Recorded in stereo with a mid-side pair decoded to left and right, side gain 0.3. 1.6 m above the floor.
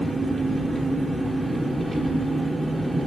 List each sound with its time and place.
0.0 s an engine running: 20° right, 2.5 m